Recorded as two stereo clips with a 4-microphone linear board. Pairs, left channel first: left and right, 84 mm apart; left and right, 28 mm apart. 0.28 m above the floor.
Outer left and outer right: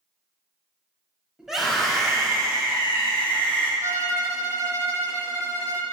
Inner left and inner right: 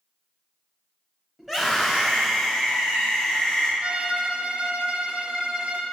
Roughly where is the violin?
Right.